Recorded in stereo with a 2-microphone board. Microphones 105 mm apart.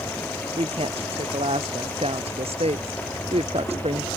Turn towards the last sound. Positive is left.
turn(degrees=-70)  # may be behind; listen again after turning